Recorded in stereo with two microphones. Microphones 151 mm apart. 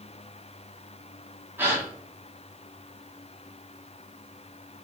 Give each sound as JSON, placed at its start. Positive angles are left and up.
{"t": 1.6, "sound": "a gasp", "side_deg": -15, "distance_m": 0.8}